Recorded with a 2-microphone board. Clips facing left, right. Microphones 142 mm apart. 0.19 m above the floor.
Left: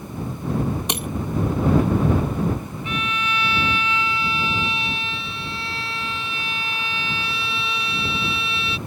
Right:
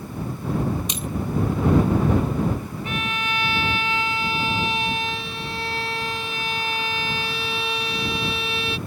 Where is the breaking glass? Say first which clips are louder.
Left 3 dB; 65° left (ahead or behind).